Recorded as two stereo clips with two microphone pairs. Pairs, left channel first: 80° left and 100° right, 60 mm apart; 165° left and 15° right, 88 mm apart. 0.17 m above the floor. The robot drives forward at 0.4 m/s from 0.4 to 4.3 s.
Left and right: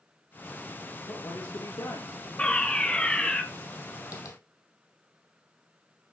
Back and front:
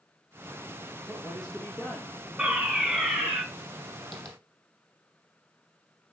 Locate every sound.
1.1 s a man speaking: 80° left, 3.5 m; by 3.4 s 95° left, 3.5 m
2.4 s a fire alarm: 55° left, 2 m; by 3.4 s 85° left, 2 m
4.1 s tapping: 85° left, 3 m